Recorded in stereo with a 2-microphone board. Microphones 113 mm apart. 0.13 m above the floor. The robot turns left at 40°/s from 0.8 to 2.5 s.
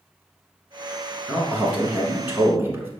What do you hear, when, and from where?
1.3 s a man speaking: 10° right (ahead or behind), 1.0 m; by 2.9 s 20° right (ahead or behind), 1.0 m